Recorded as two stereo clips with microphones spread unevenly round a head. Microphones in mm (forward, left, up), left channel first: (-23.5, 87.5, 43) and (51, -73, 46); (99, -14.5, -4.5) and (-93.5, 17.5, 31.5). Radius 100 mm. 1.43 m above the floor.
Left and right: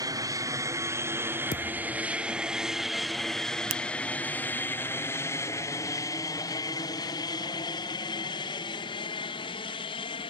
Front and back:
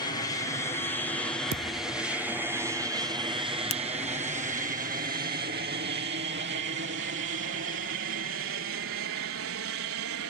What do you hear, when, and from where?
0.0 s an aircraft: 15° right; by 10.3 s 175° left
1.5 s a thud: 165° left
3.7 s a finger snap: 70° right